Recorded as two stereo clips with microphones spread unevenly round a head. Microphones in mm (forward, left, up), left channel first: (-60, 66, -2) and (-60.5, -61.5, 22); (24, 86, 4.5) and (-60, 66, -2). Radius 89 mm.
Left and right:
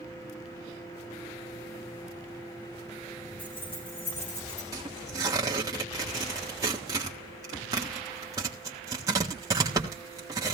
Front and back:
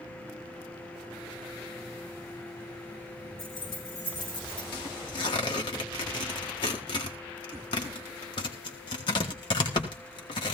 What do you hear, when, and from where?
3.4 s keys jangling: 40° left, 5.5 m; by 4.6 s 35° left, 6.5 m
4.7 s tearing paper: 25° right, 1.3 m